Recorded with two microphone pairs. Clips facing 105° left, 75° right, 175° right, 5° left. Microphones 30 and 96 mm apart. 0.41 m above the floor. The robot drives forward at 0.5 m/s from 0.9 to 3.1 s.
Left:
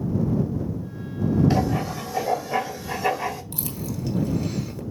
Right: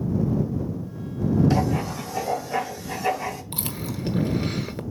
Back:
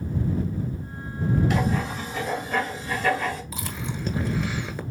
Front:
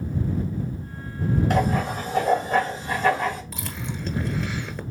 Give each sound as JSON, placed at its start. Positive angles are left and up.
{"t": 1.5, "sound": "writing", "azimuth_deg": 40, "distance_m": 2.5}
{"t": 3.5, "sound": "chewing", "azimuth_deg": -95, "distance_m": 1.3}